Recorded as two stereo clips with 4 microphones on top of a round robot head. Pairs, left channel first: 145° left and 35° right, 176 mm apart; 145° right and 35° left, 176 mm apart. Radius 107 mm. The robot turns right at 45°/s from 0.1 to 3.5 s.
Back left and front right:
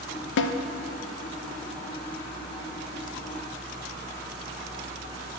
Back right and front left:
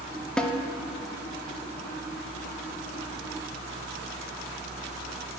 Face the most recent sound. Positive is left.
turn(degrees=-90)